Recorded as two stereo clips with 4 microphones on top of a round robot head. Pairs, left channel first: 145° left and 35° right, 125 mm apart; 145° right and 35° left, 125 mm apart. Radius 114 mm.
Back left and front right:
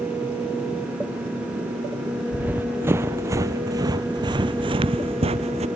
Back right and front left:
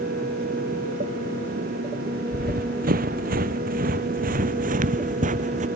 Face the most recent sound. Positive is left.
turn(degrees=5)